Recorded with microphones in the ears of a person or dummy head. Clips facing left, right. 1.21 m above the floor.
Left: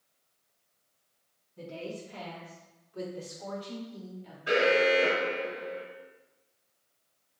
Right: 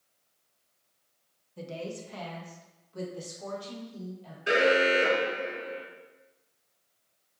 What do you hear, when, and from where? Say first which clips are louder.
1.6 s a woman speaking: right 1 dB; 80° right, 0.9 m; by 4.4 s 85° right, 2.5 m
4.5 s an alarm: even; 30° right (ahead or behind), 0.8 m